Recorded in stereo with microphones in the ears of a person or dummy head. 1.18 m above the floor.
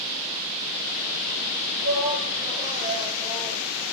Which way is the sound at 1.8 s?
40° right (ahead or behind).